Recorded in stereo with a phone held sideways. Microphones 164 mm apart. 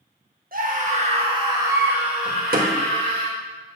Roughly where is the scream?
Right.